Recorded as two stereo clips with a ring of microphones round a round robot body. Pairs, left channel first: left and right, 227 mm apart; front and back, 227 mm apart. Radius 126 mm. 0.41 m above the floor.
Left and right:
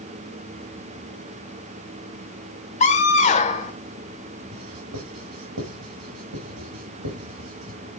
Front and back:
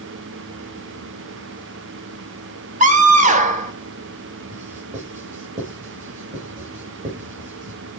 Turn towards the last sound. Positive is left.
turn(degrees=-120)